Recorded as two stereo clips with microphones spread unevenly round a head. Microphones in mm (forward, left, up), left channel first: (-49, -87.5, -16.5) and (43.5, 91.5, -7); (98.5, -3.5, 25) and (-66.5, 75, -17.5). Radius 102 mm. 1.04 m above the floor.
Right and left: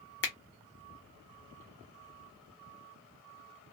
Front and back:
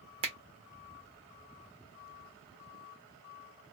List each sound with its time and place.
0.2 s a finger snap: 150° right, 0.7 m